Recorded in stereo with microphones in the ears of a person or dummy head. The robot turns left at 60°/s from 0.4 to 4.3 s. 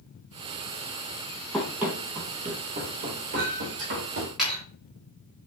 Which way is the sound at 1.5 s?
Centre (ahead or behind).